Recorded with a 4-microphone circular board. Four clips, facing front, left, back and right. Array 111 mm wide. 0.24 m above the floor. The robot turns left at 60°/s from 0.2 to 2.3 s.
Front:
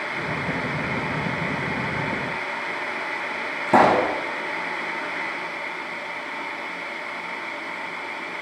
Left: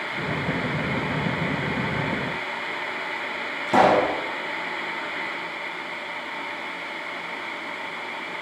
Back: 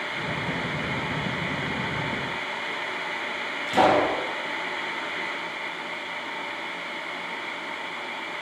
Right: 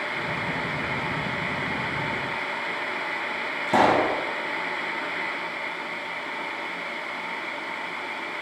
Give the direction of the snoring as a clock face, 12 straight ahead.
No snoring in this recording.